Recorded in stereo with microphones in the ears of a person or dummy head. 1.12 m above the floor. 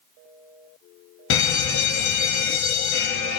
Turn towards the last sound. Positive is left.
turn(degrees=70)  # may be behind; listen again after turning